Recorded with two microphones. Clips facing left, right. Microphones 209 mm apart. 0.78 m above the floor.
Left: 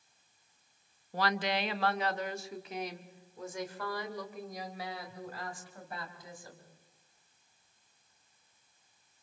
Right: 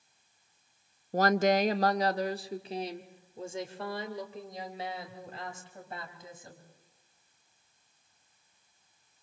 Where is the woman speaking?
40° right (ahead or behind), 0.5 m; by 6.6 s 20° right (ahead or behind), 4.5 m.